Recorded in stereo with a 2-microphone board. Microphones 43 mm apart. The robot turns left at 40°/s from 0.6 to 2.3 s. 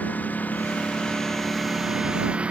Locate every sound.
0.0 s a lawn mower: 50° left (ahead or behind); by 2.5 s 30° right (ahead or behind)